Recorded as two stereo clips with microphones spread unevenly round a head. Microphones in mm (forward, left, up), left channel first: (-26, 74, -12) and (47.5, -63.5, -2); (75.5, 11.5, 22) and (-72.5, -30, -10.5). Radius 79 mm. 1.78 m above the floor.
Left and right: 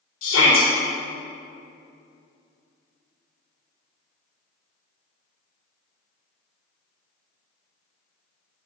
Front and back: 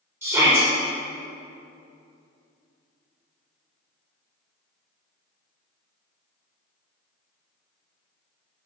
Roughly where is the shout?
Behind left.